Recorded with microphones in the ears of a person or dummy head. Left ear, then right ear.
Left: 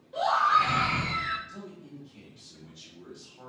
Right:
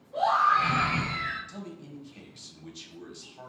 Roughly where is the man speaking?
Right.